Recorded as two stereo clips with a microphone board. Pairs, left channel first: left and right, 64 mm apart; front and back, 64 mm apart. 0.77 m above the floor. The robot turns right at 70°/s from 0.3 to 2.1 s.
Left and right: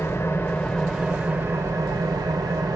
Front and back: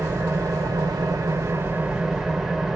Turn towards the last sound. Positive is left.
turn(degrees=-95)